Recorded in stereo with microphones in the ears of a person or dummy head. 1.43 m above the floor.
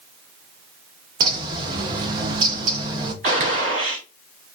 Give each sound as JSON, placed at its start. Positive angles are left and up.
{"t": 1.2, "sound": "a bird", "side_deg": -30, "distance_m": 0.5}
{"t": 3.2, "sound": "a gunshot", "side_deg": -40, "distance_m": 1.0}